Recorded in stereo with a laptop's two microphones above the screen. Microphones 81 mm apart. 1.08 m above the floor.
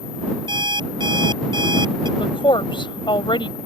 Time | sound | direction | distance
0.5 | an alarm clock | 65° right (ahead or behind) | ?
2.2 | a woman speaking | 90° left | ?